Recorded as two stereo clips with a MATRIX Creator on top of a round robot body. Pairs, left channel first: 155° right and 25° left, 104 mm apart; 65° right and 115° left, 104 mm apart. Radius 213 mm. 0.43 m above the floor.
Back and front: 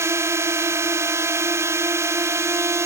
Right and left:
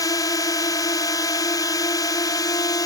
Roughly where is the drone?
Ahead right.